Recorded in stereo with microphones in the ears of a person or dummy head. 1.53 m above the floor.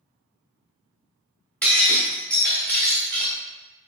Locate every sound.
1.6 s breaking glass: 10° left (ahead or behind), 1.3 m